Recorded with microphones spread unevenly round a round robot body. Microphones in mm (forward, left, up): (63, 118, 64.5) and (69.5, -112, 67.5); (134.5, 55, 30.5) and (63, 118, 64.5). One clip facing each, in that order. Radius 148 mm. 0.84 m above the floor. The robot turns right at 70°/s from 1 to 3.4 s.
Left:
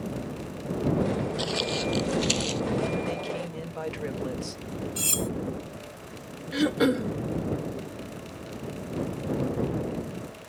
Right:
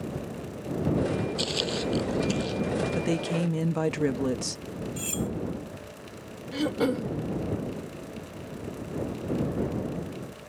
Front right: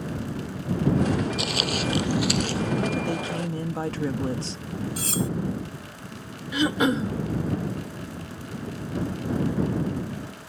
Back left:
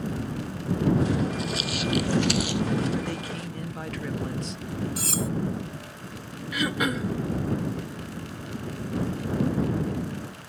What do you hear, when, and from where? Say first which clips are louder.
1.4 s footsteps: even, front right 2 dB; 35° right; by 2.6 s 105° left
2.9 s a woman speaking: right 3 dB, front right 3 dB; 110° right; by 4.6 s 75° right
5.0 s cutlery clinking: right 1 dB, front right 4 dB; 55° left
6.5 s throat clearing: left 3 dB, front right 5 dB; 20° left